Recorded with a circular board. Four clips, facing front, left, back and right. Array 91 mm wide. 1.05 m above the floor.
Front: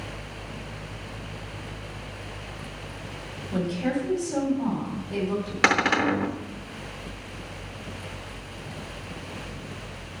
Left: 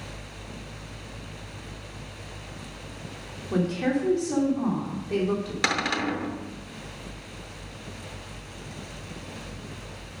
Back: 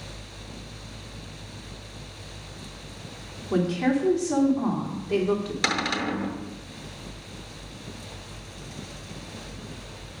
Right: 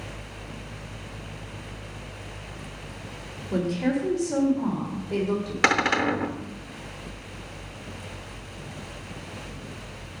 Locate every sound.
3.5 s a woman speaking: 150° left, 3 m
5.6 s a cupboard door: 35° right, 0.8 m